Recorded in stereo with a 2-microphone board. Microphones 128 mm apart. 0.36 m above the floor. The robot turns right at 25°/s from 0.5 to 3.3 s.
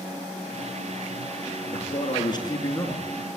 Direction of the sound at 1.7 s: 125° left.